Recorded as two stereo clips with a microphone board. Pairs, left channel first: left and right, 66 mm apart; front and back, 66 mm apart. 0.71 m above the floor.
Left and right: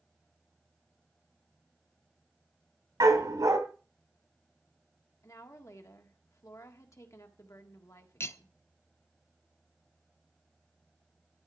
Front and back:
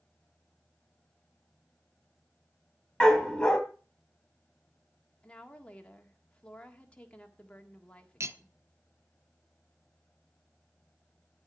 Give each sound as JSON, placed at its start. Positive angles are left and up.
{"t": 3.0, "sound": "a dog barking", "azimuth_deg": -80, "distance_m": 2.0}
{"t": 5.2, "sound": "a woman speaking", "azimuth_deg": 70, "distance_m": 1.7}
{"t": 8.2, "sound": "cutlery clinking", "azimuth_deg": 135, "distance_m": 0.6}